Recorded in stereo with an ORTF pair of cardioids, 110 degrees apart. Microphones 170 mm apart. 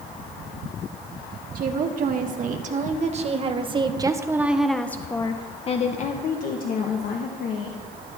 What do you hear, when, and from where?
1.6 s a woman speaking: 55° right, 2.5 m; by 7.8 s 70° left, 2 m